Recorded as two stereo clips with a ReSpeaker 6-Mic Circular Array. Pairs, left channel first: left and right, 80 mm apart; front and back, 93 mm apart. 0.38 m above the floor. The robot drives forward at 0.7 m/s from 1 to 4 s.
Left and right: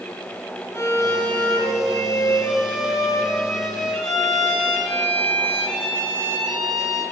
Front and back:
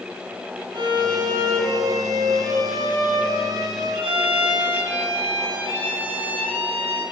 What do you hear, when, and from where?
0.7 s a violin: 145° left, 0.7 m; by 7.0 s 170° left, 2.5 m